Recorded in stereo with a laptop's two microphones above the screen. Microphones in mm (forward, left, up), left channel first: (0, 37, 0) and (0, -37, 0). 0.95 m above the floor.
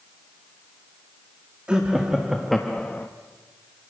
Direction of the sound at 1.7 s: 15° right (ahead or behind).